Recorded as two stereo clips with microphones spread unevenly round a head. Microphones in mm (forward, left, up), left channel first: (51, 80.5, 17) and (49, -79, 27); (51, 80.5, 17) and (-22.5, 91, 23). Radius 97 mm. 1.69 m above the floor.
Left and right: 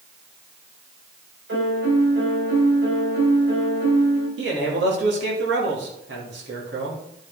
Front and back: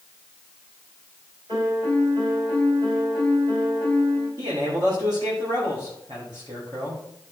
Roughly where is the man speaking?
Behind right.